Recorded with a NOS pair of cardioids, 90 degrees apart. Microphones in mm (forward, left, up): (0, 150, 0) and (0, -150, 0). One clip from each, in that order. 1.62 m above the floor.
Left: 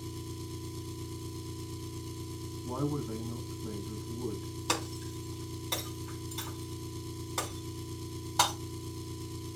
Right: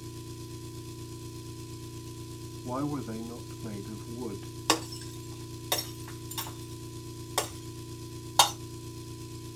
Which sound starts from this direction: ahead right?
Breaking glass, at 4.7 s.